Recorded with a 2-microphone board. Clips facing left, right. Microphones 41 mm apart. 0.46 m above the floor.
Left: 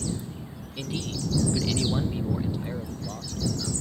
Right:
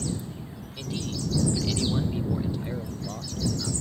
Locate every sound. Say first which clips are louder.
0.8 s a man speaking: left 1 dB; 20° left (ahead or behind); by 3.7 s 5° right (ahead or behind)